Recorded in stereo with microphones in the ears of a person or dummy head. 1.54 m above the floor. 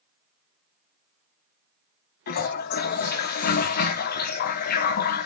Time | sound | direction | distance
2.3 | a toilet flushing | 55° left (ahead or behind) | 0.9 m